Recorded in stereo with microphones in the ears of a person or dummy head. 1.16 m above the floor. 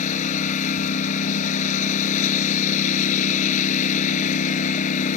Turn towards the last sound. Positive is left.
turn(degrees=45)  # may be behind; listen again after turning